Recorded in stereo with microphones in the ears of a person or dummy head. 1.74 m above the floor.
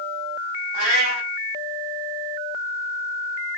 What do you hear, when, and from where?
0.7 s a cat meowing: 40° right (ahead or behind), 1.8 m